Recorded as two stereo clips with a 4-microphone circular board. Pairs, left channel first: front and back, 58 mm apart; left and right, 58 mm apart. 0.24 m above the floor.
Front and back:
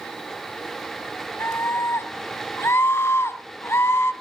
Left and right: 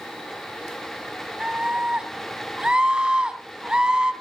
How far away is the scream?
About 1.7 m.